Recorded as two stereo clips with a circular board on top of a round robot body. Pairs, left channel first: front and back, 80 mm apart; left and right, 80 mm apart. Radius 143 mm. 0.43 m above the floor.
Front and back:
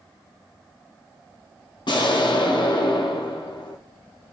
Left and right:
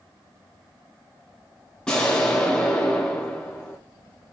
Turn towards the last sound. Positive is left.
turn(degrees=10)